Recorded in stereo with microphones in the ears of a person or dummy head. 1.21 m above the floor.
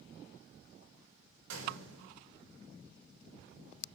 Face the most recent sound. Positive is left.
turn(degrees=-80)